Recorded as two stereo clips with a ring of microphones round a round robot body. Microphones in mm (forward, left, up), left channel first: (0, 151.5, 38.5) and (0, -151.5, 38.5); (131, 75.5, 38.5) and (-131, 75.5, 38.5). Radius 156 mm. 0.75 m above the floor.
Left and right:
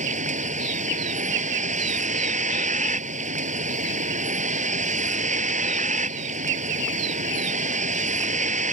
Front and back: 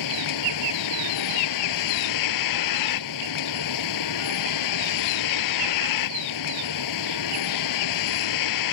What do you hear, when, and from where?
0.0 s a vehicle: 20° right